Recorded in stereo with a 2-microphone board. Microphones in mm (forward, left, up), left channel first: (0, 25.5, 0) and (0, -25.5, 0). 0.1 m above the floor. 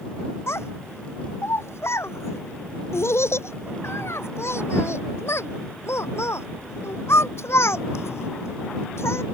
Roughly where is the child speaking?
Left.